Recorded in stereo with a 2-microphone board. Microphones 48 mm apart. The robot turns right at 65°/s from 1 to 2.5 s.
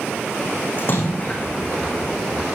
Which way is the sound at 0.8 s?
45° left (ahead or behind).